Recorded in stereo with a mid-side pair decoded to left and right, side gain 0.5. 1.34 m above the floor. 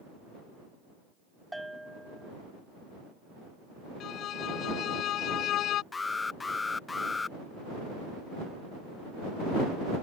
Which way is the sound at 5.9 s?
25° left.